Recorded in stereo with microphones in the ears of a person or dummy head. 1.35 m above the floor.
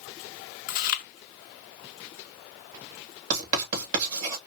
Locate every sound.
0.7 s chewing: 55° left (ahead or behind), 0.6 m
3.3 s writing: 50° right (ahead or behind), 2.5 m